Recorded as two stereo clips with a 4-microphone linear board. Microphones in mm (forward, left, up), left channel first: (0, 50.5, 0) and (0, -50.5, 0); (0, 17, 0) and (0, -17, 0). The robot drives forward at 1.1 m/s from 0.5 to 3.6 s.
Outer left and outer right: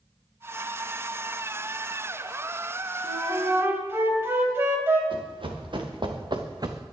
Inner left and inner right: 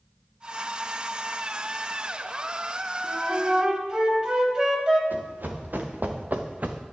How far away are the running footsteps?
About 4 m.